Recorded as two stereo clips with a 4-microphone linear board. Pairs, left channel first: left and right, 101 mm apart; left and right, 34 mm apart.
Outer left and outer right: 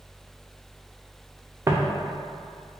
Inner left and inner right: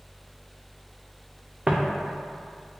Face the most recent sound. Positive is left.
turn(degrees=-30)  # may be behind; listen again after turning